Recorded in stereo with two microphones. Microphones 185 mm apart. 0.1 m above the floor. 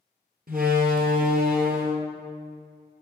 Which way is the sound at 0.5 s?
55° right (ahead or behind).